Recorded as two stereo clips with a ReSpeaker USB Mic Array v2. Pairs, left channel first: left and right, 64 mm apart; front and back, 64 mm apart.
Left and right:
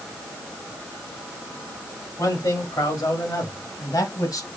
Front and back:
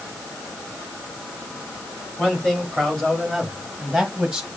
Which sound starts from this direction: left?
A man speaking, at 2.2 s.